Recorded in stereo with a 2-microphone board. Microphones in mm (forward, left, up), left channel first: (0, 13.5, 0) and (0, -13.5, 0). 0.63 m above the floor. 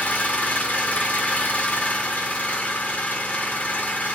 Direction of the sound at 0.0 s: 70° left (ahead or behind).